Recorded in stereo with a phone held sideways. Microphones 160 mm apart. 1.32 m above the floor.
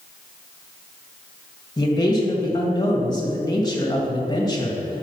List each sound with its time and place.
1.8 s a man speaking: 25° left (ahead or behind), 1.6 m